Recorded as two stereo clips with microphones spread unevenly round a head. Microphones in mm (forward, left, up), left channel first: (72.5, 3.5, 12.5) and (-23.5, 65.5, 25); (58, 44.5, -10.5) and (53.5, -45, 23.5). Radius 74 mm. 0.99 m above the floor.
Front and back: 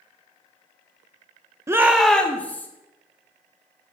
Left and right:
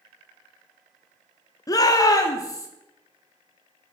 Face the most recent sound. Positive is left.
turn(degrees=40)